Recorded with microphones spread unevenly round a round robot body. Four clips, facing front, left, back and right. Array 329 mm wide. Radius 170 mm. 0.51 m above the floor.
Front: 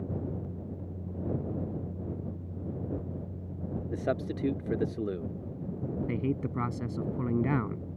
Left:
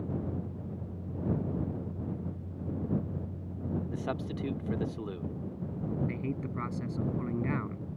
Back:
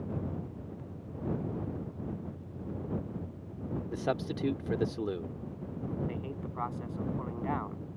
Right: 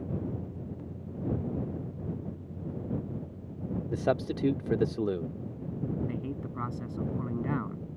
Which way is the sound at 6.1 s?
Straight ahead.